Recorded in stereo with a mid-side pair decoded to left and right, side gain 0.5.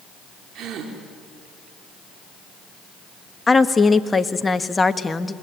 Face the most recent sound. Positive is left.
turn(degrees=20)